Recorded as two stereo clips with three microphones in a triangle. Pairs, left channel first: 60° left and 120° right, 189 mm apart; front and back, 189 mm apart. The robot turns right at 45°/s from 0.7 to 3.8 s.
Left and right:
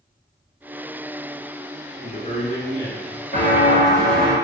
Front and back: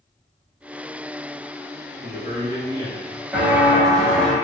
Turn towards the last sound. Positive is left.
turn(degrees=95)